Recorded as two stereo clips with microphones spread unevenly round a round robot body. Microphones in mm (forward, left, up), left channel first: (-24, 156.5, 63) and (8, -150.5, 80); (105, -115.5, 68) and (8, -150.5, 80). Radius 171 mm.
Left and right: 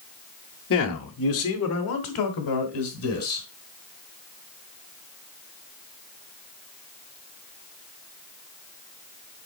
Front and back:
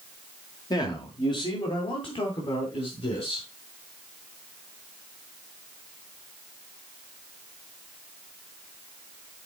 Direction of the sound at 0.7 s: 65° left.